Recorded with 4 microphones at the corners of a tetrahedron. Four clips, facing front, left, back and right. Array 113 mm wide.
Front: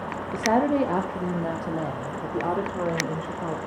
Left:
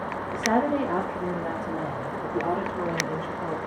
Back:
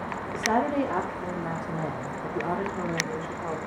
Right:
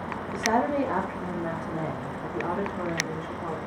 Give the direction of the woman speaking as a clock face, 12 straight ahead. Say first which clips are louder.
Left 1 dB, front 4 dB; 12 o'clock.